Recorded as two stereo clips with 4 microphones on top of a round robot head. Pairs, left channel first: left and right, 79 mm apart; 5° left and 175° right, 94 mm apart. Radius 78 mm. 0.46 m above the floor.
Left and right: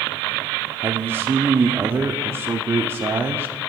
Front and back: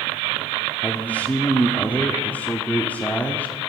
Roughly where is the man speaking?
Ahead right.